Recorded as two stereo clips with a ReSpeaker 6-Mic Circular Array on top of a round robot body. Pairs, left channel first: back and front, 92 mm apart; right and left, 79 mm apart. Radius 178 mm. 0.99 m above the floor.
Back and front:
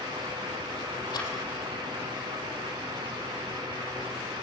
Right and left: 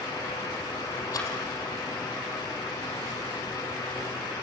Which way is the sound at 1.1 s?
130° right.